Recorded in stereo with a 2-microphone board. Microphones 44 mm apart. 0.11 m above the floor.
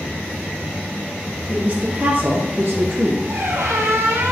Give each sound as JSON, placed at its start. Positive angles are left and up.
{"t": 1.5, "sound": "a woman speaking", "side_deg": -25, "distance_m": 2.5}
{"t": 3.3, "sound": "a squeak", "side_deg": -70, "distance_m": 1.8}